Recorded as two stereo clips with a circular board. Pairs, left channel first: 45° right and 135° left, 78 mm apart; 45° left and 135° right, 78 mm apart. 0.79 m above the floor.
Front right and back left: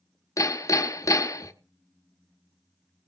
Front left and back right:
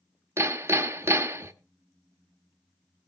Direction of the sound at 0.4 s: 85° right.